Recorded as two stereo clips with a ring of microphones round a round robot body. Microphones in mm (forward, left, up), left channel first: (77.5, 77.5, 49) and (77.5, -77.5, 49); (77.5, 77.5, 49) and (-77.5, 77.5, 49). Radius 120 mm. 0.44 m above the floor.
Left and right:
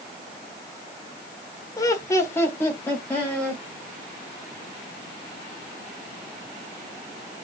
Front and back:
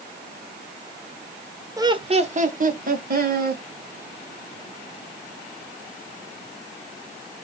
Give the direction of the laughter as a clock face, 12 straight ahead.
8 o'clock.